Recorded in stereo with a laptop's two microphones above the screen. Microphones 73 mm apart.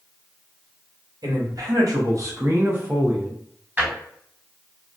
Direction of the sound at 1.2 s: 60° right (ahead or behind).